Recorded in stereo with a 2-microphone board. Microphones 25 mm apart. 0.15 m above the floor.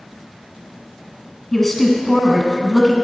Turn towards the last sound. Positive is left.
turn(degrees=10)  # may be behind; listen again after turning